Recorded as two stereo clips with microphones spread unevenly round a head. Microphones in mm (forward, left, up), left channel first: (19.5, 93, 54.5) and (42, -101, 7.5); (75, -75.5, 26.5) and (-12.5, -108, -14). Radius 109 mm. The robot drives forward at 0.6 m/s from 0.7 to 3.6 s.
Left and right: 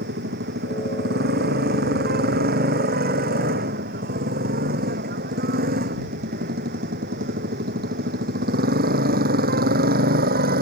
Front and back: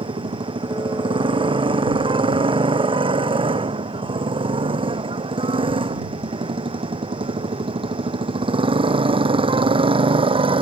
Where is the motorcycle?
130° right.